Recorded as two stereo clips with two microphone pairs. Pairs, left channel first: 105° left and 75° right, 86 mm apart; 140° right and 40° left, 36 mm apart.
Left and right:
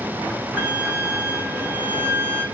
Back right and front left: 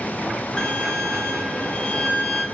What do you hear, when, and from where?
0.6 s a violin: 100° right, 0.7 m